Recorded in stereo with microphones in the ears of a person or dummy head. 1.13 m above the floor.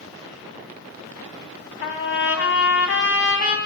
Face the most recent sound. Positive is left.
turn(degrees=50)  # may be behind; listen again after turning